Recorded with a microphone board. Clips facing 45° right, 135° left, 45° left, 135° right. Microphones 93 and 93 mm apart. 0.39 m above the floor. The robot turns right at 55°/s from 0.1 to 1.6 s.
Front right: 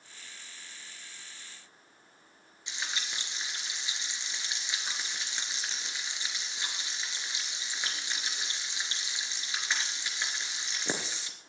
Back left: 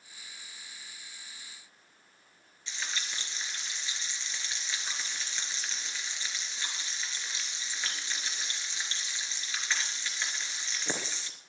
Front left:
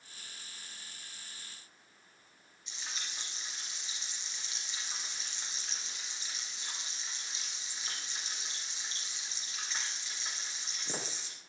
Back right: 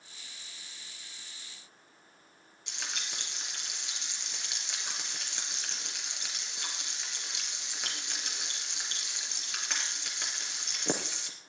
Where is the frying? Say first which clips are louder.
Even, back right 4 dB; 120° right, 3 m.